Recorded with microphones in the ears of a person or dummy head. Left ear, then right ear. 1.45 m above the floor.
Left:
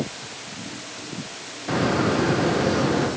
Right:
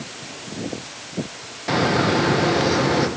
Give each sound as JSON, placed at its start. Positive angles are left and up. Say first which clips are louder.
{"t": 1.7, "sound": "a bird", "louder": "right 3 dB", "side_deg": -25, "distance_m": 1.3}